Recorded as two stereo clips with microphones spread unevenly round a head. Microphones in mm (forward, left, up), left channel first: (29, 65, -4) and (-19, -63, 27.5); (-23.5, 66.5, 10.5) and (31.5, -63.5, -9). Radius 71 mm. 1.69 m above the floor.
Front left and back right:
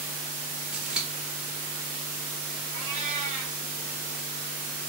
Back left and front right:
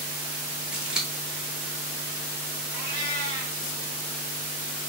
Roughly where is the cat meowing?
Behind right.